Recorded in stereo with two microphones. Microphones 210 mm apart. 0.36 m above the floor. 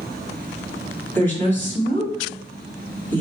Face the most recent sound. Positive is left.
turn(degrees=10)  # may be behind; listen again after turning